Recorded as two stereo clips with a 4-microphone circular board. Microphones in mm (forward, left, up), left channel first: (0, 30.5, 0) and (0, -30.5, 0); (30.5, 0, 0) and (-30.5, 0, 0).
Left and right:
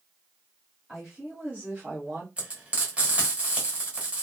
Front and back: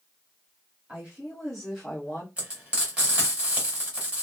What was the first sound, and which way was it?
A woman speaking, 165° right.